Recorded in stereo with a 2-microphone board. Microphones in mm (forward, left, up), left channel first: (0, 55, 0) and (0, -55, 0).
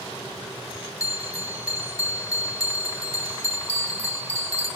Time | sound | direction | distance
1.0 | a bell | 30° left (ahead or behind) | 2.5 m
3.7 | a bell | 65° left (ahead or behind) | 8 m